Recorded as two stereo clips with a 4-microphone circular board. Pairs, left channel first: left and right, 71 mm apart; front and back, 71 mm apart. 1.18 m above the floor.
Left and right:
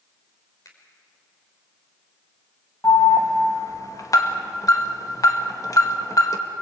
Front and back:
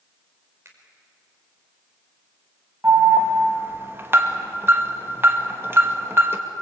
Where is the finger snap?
130° left, 4.5 m.